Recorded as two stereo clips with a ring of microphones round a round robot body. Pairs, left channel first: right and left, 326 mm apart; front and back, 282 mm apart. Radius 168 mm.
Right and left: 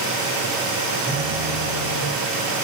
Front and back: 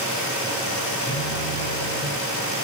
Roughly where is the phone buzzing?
Ahead.